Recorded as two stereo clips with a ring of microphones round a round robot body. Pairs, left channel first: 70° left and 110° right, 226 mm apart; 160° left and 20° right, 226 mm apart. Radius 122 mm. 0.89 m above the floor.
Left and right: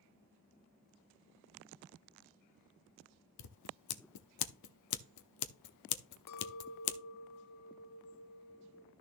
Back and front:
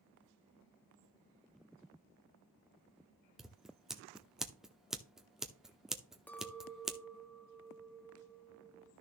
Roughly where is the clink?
Left.